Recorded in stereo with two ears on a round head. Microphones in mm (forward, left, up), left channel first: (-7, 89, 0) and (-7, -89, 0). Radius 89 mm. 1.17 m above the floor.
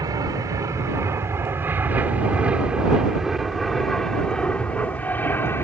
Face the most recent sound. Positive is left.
turn(degrees=10)  # may be behind; listen again after turning